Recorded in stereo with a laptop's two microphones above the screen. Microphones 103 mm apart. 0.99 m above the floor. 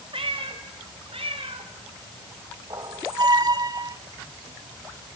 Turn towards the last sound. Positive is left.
turn(degrees=-40)  # may be behind; listen again after turning